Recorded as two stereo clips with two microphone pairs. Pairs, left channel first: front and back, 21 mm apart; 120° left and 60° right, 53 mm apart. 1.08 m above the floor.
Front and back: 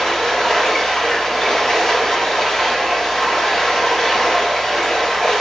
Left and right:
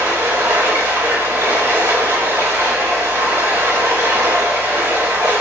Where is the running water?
60° right, 2 m.